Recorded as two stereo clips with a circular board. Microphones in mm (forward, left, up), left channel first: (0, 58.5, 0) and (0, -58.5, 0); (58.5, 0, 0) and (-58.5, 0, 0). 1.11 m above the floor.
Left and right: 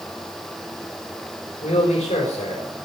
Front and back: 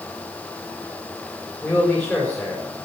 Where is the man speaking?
75° left, 5.5 m.